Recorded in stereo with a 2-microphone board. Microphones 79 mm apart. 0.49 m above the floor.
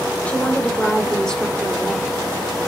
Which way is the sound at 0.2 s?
15° left (ahead or behind).